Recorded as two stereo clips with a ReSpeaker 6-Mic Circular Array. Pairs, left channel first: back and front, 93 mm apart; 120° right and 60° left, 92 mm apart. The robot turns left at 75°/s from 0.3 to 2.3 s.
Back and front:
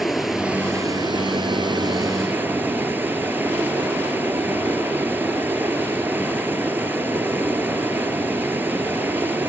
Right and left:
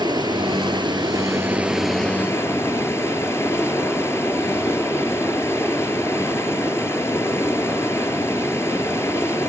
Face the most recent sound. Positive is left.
turn(degrees=-65)